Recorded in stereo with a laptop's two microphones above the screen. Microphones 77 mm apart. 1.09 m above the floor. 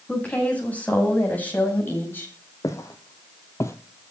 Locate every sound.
0.1 s a woman speaking: 20° left (ahead or behind), 8.5 m; by 2.3 s 30° left (ahead or behind), 7 m
2.6 s footsteps: 40° left (ahead or behind), 2 m